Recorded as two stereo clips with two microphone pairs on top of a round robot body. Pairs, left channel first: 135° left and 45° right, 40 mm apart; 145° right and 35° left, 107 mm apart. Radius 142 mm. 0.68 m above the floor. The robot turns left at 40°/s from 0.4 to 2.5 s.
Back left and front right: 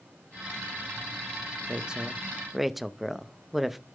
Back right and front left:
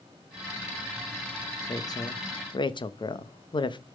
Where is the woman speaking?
95° right, 1.1 m; by 3.8 s 125° right, 1.1 m.